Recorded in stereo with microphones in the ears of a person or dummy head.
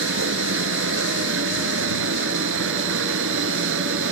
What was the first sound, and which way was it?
A machine running, 75° right (ahead or behind).